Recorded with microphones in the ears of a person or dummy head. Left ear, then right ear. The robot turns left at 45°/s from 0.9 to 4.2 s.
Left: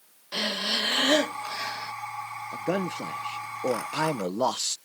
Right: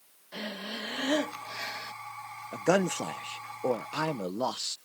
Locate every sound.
0.3 s breathing: 35° left; by 1.9 s 15° right
2.5 s a man speaking: 120° right; by 4.8 s 165° left